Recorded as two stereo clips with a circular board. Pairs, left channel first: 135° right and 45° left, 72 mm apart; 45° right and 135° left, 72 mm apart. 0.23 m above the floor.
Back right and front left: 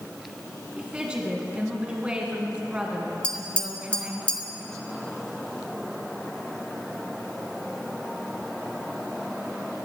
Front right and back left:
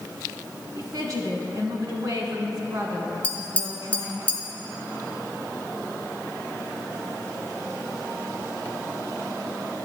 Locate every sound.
0.8 s a woman speaking: 120° left, 2 m
3.2 s tapping: 85° right, 1.6 m